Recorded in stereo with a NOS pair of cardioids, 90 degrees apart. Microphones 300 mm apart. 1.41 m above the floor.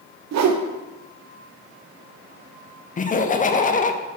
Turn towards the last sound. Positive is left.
turn(degrees=25)